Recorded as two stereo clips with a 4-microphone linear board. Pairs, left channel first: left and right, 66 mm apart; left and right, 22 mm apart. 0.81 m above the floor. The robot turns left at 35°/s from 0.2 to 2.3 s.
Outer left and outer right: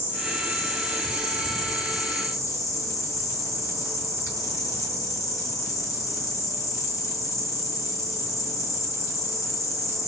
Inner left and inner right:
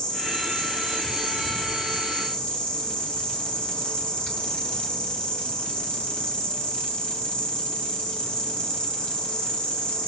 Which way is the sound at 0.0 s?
135° left.